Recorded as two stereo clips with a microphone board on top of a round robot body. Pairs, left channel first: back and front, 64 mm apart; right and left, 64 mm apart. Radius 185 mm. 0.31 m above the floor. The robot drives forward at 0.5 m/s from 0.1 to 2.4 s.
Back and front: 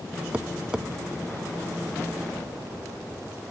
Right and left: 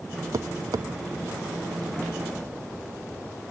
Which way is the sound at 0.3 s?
70° left.